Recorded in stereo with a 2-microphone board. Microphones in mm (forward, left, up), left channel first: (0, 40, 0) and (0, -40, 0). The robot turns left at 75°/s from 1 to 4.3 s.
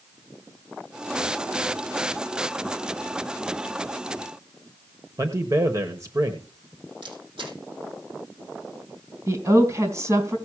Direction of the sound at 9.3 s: 40° right (ahead or behind).